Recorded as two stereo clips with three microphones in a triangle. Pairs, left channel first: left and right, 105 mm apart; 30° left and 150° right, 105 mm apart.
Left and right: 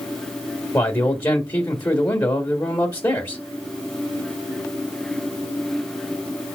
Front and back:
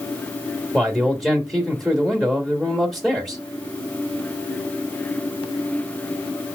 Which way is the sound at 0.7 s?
115° left.